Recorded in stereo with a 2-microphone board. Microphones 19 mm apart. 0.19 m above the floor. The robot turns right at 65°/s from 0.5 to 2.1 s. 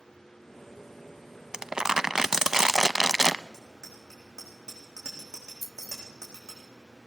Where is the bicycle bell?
40° right (ahead or behind), 9 m.